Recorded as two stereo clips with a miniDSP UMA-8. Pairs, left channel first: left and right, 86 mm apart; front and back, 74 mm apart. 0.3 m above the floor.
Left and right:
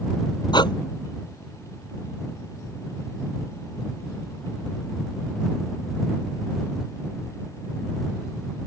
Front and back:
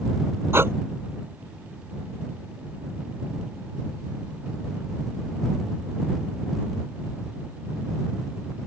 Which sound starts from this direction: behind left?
Breathing, at 0.5 s.